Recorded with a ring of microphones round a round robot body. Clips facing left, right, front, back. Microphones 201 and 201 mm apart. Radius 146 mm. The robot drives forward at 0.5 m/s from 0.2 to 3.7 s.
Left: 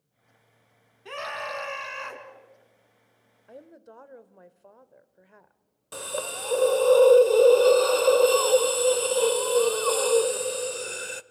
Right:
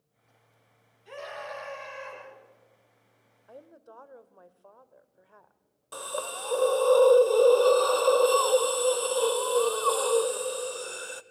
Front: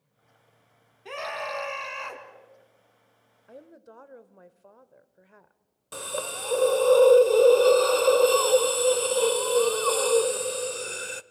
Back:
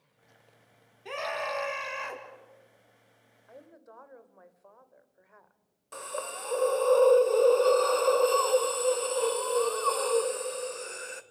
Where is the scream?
90° left, 4 m; by 2.2 s 100° left, 4 m.